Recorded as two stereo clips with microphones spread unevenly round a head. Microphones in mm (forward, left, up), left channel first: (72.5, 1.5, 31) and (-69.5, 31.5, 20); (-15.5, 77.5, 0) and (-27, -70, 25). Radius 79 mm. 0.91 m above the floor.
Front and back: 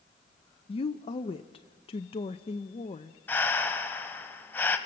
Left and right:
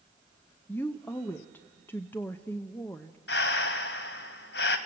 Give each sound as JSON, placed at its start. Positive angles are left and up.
{"t": 0.7, "sound": "a woman speaking", "azimuth_deg": 25, "distance_m": 0.7}
{"t": 3.3, "sound": "breathing", "azimuth_deg": 60, "distance_m": 1.4}